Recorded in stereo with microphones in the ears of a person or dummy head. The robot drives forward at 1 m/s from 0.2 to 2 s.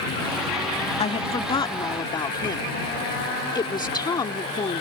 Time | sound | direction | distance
1.0 | a woman speaking | 30° left (ahead or behind) | ?